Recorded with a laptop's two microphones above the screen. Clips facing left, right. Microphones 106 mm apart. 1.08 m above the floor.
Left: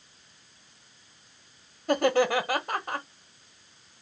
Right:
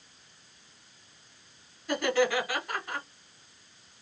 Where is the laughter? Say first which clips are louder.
Left 3 dB; 45° left (ahead or behind), 1.1 m.